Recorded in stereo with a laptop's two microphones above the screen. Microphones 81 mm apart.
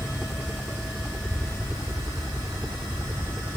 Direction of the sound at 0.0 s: 10° right (ahead or behind).